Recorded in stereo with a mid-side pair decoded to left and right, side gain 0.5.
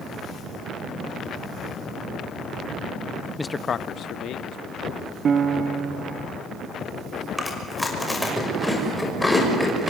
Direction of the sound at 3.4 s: 5° left.